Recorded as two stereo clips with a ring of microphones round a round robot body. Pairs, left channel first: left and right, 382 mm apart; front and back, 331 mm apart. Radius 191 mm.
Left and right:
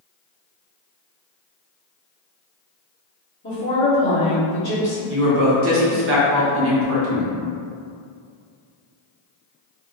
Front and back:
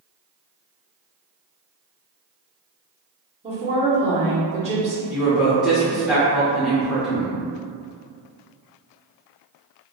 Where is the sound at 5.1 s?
95° right, 0.7 m.